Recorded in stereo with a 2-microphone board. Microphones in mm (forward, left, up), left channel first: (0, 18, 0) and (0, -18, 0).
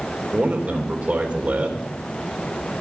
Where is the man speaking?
30° right (ahead or behind), 3 m.